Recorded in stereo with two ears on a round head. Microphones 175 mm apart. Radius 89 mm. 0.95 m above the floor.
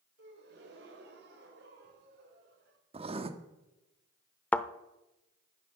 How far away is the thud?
About 0.6 m.